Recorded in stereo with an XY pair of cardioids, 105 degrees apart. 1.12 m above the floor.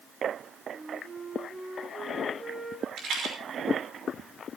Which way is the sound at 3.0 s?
70° right.